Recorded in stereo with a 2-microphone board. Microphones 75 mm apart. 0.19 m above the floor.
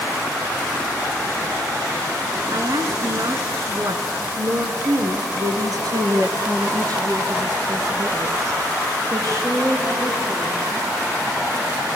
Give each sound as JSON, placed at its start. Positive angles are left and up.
{"t": 2.5, "sound": "a woman speaking", "side_deg": -50, "distance_m": 2.0}